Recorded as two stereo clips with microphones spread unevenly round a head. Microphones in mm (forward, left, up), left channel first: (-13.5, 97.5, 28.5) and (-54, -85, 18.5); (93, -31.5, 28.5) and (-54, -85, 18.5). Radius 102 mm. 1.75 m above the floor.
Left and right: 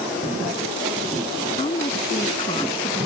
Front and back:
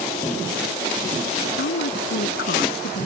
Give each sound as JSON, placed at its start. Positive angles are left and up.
{"t": 1.6, "sound": "a woman speaking", "azimuth_deg": 10}